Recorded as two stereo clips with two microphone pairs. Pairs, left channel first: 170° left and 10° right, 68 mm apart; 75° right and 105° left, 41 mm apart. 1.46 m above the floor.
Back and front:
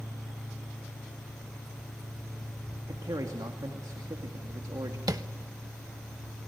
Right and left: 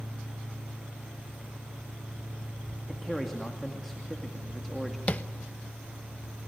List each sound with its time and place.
2.9 s a man speaking: 10° left, 2.5 m
5.1 s tapping: 25° right, 0.9 m